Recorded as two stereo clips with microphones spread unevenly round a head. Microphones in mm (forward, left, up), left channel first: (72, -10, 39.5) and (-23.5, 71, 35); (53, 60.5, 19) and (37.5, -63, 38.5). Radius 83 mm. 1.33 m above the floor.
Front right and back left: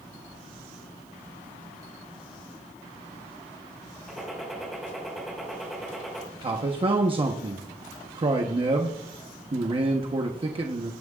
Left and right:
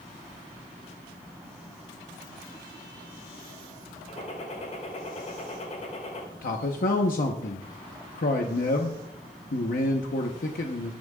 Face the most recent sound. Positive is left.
turn(degrees=90)